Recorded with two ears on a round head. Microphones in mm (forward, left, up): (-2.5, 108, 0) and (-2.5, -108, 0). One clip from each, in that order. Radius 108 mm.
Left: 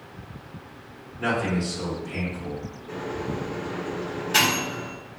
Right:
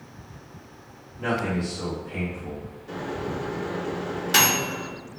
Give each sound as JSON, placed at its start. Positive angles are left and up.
{"t": 1.2, "sound": "a man speaking", "side_deg": 55, "distance_m": 1.2}
{"t": 2.9, "sound": "a microwave", "side_deg": -45, "distance_m": 1.2}